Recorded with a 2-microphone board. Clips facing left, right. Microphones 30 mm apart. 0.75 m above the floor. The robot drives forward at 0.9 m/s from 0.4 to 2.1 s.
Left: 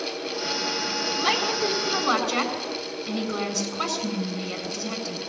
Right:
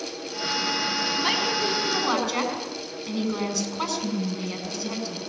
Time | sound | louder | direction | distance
1.2 | a woman speaking | left 2 dB | 5° right (ahead or behind) | 7 m